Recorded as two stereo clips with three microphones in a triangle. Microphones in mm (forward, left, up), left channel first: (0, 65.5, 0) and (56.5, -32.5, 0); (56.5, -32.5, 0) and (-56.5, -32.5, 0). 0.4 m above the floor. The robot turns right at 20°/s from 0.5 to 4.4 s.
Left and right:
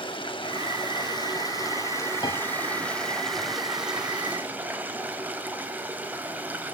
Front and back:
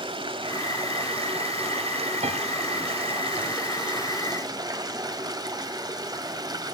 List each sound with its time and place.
0.0 s running water: 150° left, 2 m; by 6.7 s 130° right, 2 m
2.2 s a piano: 170° left, 1.7 m; by 2.4 s 175° left, 1.7 m